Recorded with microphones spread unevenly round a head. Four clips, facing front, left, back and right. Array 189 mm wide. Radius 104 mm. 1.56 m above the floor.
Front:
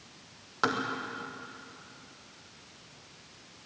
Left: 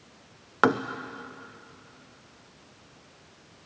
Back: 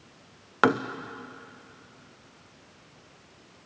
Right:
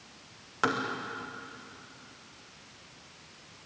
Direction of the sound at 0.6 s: 140° left.